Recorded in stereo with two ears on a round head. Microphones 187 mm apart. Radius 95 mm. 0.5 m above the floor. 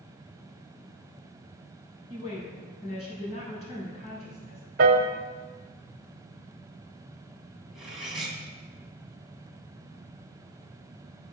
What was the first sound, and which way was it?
A woman speaking, 35° left (ahead or behind).